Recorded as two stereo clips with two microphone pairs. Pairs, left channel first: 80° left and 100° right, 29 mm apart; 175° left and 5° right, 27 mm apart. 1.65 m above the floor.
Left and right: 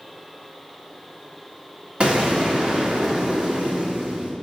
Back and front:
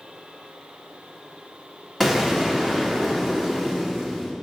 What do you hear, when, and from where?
2.0 s an explosion: 110° right, 1.6 m